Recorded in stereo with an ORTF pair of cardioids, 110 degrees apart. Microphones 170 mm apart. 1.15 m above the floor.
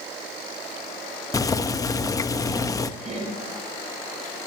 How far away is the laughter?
About 5 m.